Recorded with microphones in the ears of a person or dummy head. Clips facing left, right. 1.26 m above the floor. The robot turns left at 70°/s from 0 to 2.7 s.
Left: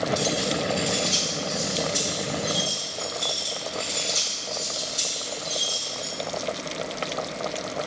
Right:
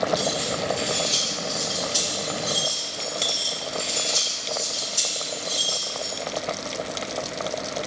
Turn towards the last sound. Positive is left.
turn(degrees=-65)  # may be behind; listen again after turning